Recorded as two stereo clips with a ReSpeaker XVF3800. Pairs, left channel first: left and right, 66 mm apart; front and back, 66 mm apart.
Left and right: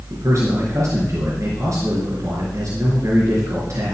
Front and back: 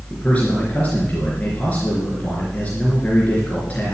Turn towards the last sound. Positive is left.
turn(degrees=-65)